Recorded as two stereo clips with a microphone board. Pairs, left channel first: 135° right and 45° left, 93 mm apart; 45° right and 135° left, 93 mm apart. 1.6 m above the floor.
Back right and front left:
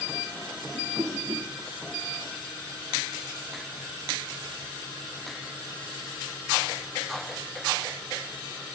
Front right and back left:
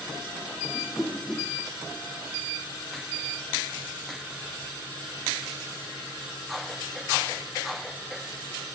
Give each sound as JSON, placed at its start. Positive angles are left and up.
{"t": 0.7, "sound": "a whoosh", "azimuth_deg": 30, "distance_m": 0.9}